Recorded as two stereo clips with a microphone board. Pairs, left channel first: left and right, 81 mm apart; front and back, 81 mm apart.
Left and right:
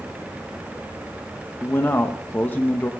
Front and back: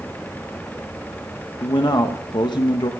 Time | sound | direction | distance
1.6 | a man speaking | 25° left | 0.7 m